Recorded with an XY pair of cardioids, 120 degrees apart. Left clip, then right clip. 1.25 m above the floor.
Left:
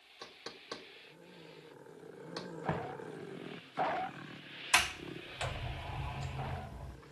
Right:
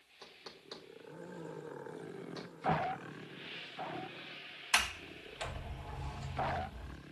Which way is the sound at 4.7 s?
25° left.